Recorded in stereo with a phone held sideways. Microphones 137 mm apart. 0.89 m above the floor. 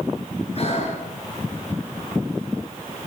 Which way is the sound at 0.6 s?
50° left (ahead or behind).